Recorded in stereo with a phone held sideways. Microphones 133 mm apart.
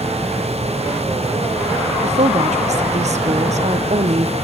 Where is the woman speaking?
60° right (ahead or behind), 1.0 m.